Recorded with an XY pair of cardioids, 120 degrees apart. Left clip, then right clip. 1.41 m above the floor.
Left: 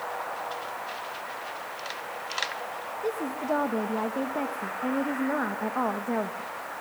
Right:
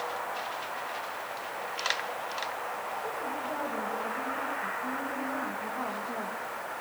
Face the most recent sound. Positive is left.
turn(degrees=70)